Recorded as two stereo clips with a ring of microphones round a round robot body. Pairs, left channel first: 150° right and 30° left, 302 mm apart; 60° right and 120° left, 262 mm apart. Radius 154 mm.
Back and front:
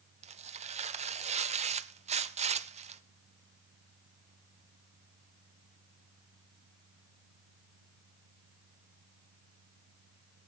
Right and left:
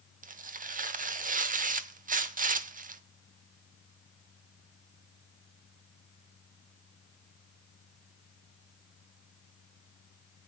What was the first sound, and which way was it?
Tearing paper, 85° left.